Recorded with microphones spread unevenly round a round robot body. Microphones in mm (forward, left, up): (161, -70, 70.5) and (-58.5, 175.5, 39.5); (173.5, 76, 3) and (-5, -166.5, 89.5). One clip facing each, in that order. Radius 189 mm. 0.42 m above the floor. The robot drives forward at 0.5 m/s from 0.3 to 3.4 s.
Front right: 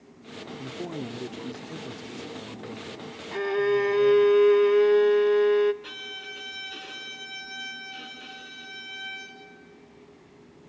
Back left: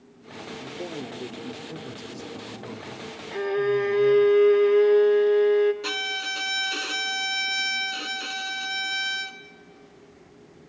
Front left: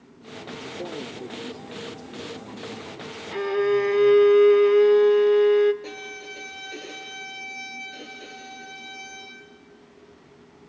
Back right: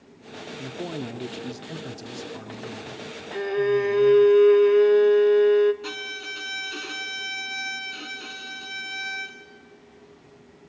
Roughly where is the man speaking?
Ahead right.